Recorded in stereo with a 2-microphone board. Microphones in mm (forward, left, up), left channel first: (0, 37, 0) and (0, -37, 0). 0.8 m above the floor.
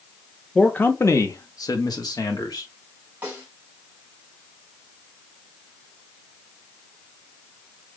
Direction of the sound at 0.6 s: 20° left (ahead or behind).